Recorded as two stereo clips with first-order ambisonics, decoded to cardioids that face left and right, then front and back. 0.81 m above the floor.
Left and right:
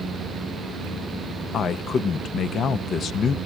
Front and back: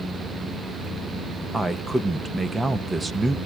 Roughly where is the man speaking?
Left.